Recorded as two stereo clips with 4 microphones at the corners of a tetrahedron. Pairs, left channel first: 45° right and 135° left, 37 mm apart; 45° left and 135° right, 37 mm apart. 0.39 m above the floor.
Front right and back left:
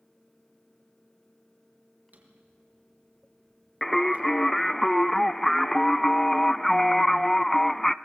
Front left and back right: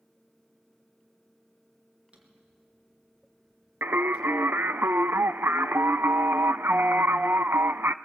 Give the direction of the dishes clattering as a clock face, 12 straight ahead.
No dishes clattering in this recording.